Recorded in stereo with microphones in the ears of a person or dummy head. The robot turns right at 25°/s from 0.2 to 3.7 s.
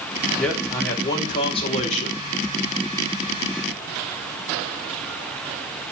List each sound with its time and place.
0.4 s a man speaking: straight ahead, 1.2 m; by 2.2 s 50° left, 1.2 m